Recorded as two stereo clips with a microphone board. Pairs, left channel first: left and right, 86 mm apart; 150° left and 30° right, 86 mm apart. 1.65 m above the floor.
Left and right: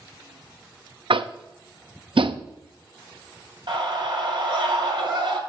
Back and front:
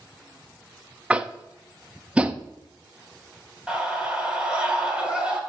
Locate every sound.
1.1 s tapping: 105° right, 0.6 m
3.7 s a scream: 105° right, 4 m